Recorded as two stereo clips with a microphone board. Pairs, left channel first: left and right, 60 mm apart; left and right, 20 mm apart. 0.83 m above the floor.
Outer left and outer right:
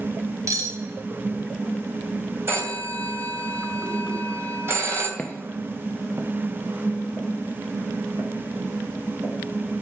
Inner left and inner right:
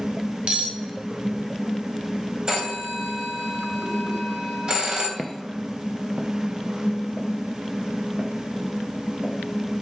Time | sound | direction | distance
0.5 | cutlery clinking | 65° right (ahead or behind) | 2.5 m
2.5 | a phone ringing | 40° right (ahead or behind) | 3 m
5.2 | footsteps | 15° left (ahead or behind) | 1.0 m